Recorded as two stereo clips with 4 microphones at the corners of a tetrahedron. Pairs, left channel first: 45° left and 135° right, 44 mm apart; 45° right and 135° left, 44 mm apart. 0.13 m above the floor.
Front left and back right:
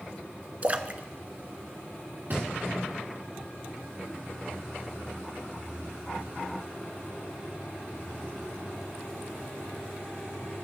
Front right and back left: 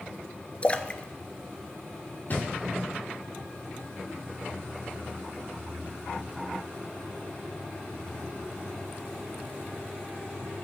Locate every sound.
0.6 s a splash: 95° right, 0.5 m
2.3 s a thud: 95° right, 2.5 m